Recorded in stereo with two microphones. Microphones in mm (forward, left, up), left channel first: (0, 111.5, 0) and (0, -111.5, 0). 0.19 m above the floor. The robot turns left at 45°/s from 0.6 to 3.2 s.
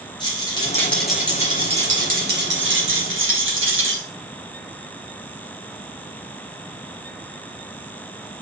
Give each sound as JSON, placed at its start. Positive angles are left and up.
{"t": 0.2, "sound": "a rattle", "azimuth_deg": 20, "distance_m": 3.0}